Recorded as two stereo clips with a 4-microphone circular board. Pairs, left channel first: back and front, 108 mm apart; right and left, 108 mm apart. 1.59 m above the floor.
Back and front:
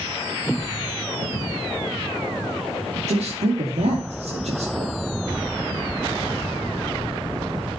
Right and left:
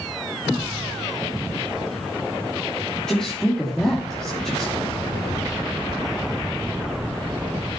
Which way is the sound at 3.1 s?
5° right.